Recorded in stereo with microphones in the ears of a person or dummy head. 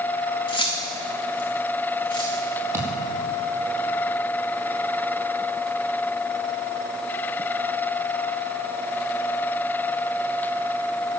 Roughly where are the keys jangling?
Left.